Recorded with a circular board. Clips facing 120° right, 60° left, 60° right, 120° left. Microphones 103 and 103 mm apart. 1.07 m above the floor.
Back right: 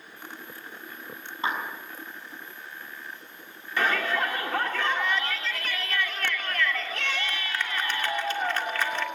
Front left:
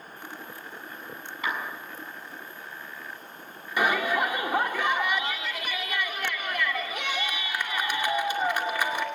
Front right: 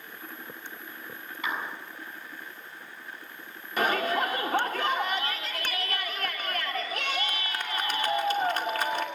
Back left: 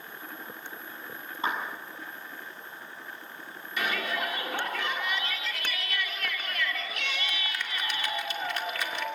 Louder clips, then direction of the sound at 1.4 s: Back right 2 dB, back left 2 dB; straight behind.